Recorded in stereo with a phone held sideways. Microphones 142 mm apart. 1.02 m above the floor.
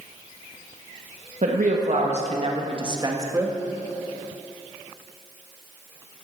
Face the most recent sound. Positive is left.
turn(degrees=-20)  # may be behind; listen again after turning